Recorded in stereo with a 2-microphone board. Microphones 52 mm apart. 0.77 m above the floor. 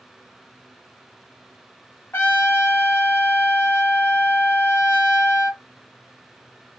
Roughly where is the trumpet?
Left.